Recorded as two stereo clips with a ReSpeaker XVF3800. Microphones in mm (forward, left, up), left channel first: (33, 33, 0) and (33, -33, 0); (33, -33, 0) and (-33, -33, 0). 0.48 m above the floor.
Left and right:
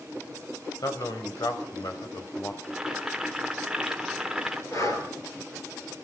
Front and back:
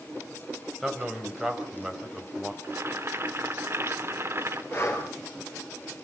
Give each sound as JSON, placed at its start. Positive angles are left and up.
{"t": 0.8, "sound": "a man speaking", "azimuth_deg": 95, "distance_m": 3.0}
{"t": 2.6, "sound": "boiling", "azimuth_deg": -165, "distance_m": 1.3}
{"t": 4.7, "sound": "breathing", "azimuth_deg": 50, "distance_m": 3.0}